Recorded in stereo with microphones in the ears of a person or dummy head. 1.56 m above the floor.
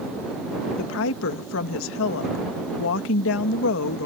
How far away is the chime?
No chime in this recording.